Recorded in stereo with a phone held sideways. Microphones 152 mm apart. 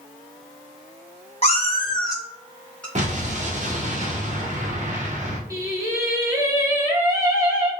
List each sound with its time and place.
1.4 s a cat meowing: 40° left (ahead or behind), 1.1 m; by 2.9 s 5° left (ahead or behind), 1.4 m
3.0 s an explosion: 50° right (ahead or behind), 0.7 m
5.5 s singing: 20° right (ahead or behind), 1.0 m